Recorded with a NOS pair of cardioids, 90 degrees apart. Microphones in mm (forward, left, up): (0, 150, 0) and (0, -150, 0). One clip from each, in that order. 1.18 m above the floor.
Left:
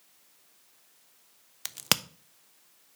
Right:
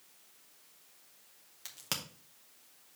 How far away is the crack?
About 0.6 m.